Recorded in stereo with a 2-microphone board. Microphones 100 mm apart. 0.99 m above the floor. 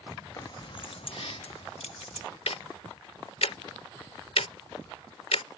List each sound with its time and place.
0.4 s keys jangling: 35° left (ahead or behind); by 2.3 s 80° left
2.5 s ticking: 80° left